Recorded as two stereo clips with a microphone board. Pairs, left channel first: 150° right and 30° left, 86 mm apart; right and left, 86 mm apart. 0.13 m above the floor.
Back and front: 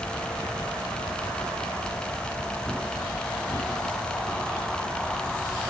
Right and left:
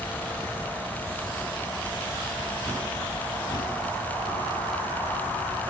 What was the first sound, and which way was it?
Only background noise.